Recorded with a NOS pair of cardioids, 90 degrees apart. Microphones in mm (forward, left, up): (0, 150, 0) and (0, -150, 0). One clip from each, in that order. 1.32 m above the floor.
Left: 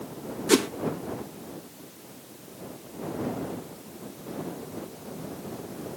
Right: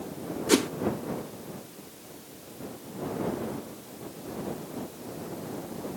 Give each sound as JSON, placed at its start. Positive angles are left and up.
{"t": 0.5, "sound": "a whoosh", "azimuth_deg": 15}